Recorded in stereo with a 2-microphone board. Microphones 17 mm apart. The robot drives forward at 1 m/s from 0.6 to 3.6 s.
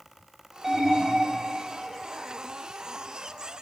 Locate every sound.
0.6 s an alarm: 15° right (ahead or behind), 4.5 m; by 1.4 s 20° right (ahead or behind), 3.5 m